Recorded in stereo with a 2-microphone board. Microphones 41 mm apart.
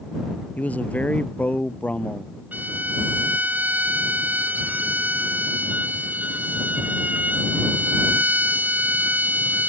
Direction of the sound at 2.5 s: 40° right (ahead or behind).